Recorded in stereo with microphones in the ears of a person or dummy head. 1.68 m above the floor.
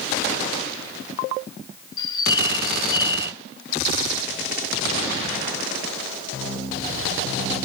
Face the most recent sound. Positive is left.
turn(degrees=20)  # may be behind; listen again after turning